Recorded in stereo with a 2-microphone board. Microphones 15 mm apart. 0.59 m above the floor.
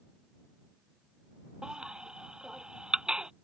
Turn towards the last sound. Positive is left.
turn(degrees=-70)  # may be behind; listen again after turning